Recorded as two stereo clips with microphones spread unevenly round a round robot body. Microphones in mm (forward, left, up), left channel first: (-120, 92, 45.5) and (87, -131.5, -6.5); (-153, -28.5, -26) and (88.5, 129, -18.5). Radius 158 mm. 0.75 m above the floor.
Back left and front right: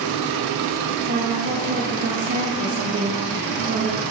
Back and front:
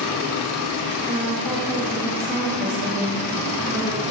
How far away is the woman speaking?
About 1.1 m.